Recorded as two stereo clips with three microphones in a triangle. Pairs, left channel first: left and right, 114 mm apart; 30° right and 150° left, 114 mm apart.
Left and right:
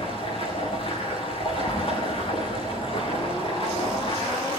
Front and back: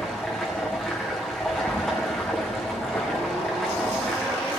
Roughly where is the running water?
Ahead left.